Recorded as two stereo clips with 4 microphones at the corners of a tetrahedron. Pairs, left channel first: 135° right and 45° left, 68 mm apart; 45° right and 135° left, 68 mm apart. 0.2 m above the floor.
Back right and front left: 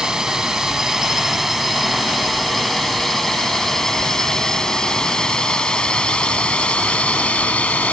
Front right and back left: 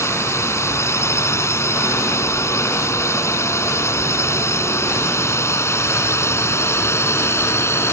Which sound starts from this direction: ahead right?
A drone, at 0.0 s.